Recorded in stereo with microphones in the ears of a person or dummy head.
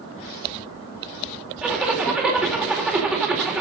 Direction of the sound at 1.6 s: 5° right (ahead or behind).